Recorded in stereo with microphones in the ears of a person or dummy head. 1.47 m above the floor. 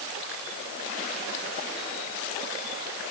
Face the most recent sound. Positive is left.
No sound to turn to.